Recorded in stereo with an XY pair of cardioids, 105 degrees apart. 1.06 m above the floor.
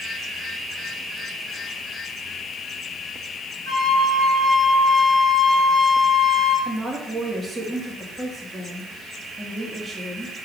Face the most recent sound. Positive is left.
turn(degrees=-20)